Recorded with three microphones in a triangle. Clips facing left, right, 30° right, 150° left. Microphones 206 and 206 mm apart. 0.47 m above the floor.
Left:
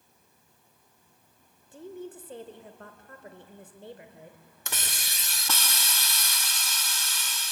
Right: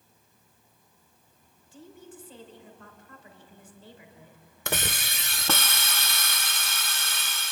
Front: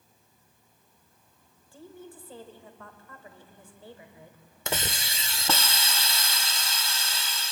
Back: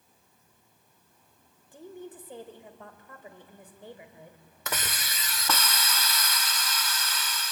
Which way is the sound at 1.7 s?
85° left.